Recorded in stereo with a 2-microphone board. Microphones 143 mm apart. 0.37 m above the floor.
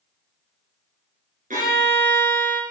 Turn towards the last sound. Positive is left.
turn(degrees=-75)  # may be behind; listen again after turning